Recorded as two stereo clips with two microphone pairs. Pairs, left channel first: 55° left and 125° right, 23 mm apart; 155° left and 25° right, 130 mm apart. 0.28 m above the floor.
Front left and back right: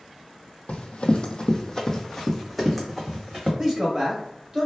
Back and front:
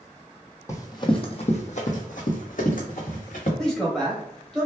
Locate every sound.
0.7 s running footsteps: 85° left, 0.7 m; by 3.5 s 160° left, 1.5 m
3.6 s a man speaking: 130° right, 1.0 m